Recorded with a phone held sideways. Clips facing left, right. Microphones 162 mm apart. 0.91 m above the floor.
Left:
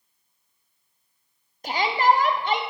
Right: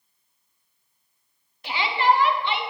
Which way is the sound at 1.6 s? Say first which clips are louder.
Left 1 dB; 45° left (ahead or behind).